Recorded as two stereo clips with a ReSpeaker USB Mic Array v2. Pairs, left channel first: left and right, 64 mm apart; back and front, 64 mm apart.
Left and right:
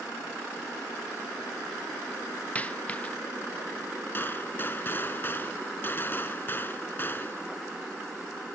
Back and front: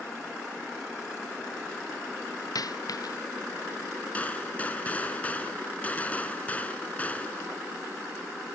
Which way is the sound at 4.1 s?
125° left.